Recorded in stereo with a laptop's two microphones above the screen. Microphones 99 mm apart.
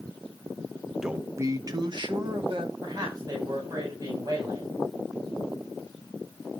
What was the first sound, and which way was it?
A man speaking, 5° right (ahead or behind).